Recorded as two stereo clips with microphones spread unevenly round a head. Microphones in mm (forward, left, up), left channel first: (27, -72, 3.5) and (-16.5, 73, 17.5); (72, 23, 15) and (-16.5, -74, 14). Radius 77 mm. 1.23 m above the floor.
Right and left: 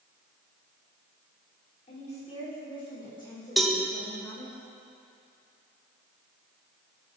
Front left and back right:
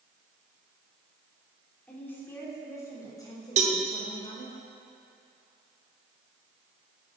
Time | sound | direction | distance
1.9 | a woman speaking | 30° right | 3.5 m
3.6 | a cowbell | 160° right | 0.8 m